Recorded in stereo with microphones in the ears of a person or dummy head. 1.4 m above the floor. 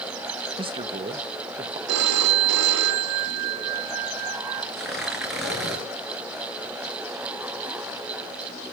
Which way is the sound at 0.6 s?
30° right (ahead or behind).